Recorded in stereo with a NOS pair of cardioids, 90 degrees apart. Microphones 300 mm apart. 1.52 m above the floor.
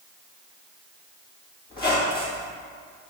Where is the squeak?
30° left, 1.9 m.